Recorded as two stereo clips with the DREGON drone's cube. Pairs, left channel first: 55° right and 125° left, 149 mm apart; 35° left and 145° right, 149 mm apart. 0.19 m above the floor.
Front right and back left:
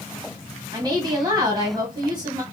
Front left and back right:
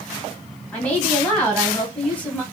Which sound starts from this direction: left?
A woman speaking, at 0.7 s.